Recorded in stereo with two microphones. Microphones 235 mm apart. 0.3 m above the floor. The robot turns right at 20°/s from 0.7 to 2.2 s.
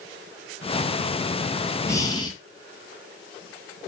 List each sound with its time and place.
1.9 s breathing: 10° left (ahead or behind), 3.5 m; by 2.3 s 20° left (ahead or behind), 3.5 m